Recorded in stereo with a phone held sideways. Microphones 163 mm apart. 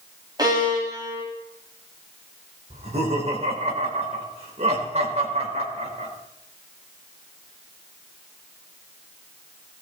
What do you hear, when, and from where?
0.4 s a violin: 25° right (ahead or behind), 5.5 m
2.7 s laughter: 40° right (ahead or behind), 5 m